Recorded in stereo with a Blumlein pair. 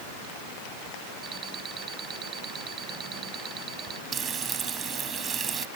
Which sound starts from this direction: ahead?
An alarm clock, at 1.2 s.